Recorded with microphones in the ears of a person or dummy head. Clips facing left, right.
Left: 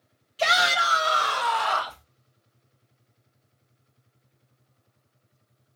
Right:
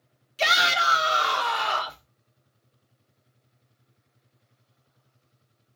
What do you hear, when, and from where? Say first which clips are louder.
0.4 s a shout: left 2 dB; 35° right (ahead or behind), 0.9 m; by 2.0 s 25° right (ahead or behind), 2 m